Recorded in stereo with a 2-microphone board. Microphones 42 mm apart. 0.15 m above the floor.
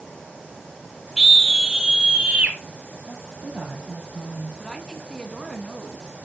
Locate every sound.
1.2 s a scream: 10° right (ahead or behind), 1.5 m; by 2.6 s 30° right (ahead or behind), 1.9 m
3.1 s a woman speaking: 35° right (ahead or behind), 4.5 m
4.6 s a woman speaking: 15° left (ahead or behind), 1.4 m